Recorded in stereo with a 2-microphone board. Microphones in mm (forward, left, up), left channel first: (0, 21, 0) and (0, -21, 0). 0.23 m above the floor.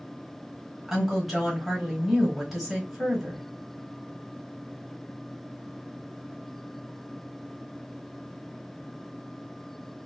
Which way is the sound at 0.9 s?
5° right (ahead or behind).